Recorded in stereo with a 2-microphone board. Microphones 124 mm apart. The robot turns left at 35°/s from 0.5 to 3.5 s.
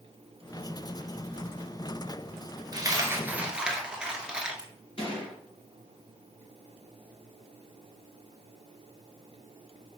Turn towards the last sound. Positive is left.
turn(degrees=50)  # may be behind; listen again after turning